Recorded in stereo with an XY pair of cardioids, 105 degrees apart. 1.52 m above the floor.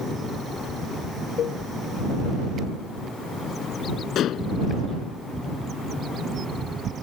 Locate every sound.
1.4 s a cowbell: 65° left
4.2 s dishes clattering: 70° left